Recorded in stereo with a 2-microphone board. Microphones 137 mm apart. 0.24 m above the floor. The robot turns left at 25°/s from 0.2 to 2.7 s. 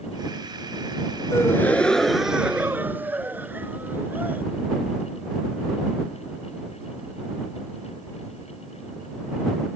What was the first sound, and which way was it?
A gasp, 20° left.